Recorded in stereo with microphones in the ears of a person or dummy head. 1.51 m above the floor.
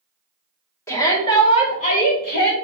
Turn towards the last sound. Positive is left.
turn(degrees=65)  # may be behind; listen again after turning